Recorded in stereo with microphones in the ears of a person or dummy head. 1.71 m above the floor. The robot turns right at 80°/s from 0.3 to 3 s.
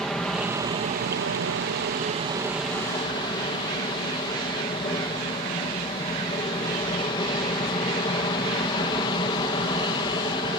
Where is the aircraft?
170° left; by 10.6 s 25° left.